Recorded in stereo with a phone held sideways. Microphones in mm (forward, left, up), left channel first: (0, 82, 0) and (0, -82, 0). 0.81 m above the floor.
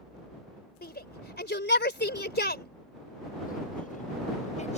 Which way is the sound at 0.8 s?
65° left (ahead or behind).